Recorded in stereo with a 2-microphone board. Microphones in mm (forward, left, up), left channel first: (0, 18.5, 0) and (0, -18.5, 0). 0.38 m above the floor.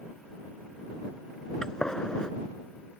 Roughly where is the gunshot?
Centre.